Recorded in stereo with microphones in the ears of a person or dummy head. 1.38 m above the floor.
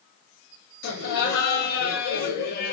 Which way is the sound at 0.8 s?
60° left (ahead or behind).